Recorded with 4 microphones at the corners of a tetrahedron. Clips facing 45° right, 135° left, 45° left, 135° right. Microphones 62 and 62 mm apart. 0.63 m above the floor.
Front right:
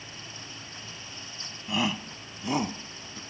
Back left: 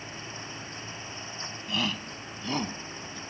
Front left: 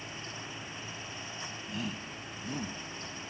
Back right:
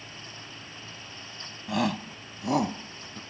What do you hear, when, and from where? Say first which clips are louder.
1.7 s a shout: front right 3 dB, back right 13 dB; 120° right; by 3.2 s 125° right